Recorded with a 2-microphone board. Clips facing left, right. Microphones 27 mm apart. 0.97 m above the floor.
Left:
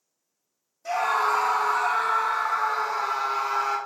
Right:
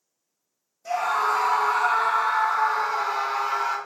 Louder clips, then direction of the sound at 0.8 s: Even; 15° left (ahead or behind).